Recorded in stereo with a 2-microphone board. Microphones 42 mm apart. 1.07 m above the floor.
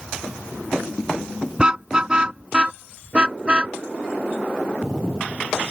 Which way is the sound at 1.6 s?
20° right (ahead or behind).